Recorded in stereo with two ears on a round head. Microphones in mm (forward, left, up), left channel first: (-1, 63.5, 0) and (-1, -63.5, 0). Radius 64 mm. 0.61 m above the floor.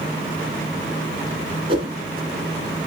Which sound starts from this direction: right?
A whoosh, at 1.7 s.